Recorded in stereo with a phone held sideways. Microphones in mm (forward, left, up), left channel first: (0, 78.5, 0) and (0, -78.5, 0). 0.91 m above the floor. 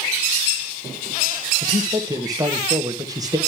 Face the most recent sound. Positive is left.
turn(degrees=-25)  # may be behind; listen again after turning